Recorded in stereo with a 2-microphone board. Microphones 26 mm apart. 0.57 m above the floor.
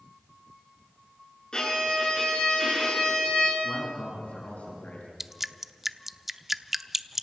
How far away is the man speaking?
About 6 m.